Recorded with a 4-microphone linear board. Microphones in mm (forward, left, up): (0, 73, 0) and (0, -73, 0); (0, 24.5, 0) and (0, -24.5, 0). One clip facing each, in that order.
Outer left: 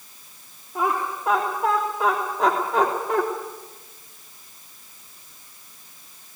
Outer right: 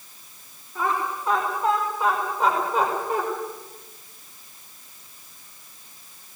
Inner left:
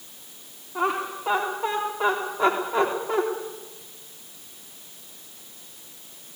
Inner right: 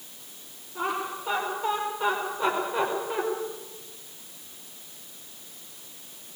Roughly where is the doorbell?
No doorbell in this recording.